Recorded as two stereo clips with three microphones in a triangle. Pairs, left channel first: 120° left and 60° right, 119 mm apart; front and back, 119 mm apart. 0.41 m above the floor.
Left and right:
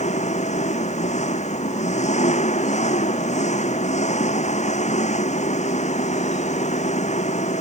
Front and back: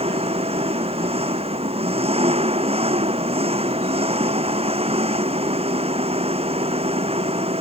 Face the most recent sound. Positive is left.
turn(degrees=145)